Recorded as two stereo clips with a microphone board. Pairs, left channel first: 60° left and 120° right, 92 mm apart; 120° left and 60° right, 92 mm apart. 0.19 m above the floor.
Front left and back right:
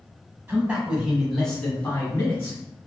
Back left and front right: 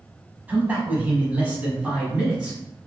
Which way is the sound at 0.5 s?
95° right.